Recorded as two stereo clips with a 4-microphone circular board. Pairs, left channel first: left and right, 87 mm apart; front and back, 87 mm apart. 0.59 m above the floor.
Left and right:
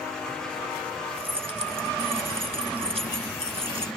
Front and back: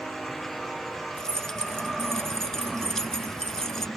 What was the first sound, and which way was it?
Keys jangling, 85° right.